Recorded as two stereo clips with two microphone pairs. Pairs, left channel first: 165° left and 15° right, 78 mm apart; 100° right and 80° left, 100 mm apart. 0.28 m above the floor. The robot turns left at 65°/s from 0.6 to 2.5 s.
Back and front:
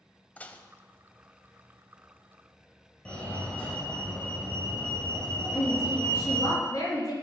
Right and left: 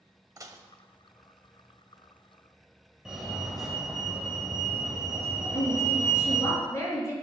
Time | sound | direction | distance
0.4 | dishes clattering | 105° left | 0.8 m
3.0 | a fire alarm | 155° left | 2 m
5.5 | a woman speaking | 160° right | 4.5 m